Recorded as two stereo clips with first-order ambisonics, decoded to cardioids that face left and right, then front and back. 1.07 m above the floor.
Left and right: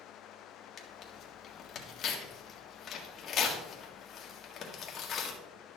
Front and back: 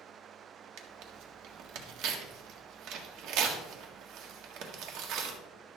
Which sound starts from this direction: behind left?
Tearing paper, at 0.8 s.